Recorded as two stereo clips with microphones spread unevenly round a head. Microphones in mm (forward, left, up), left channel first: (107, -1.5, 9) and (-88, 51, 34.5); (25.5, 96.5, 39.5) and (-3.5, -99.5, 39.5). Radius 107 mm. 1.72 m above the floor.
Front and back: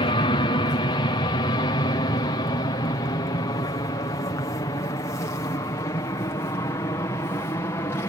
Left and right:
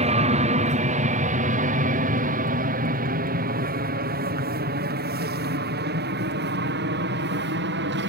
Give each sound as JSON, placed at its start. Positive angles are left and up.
{"t": 0.0, "sound": "an aircraft", "azimuth_deg": -65}